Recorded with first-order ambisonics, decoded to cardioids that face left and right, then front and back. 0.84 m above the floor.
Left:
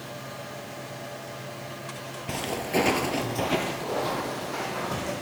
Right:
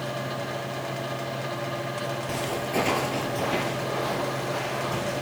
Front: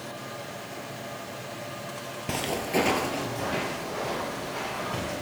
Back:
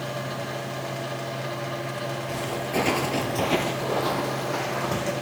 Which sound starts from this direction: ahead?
Footsteps, at 2.3 s.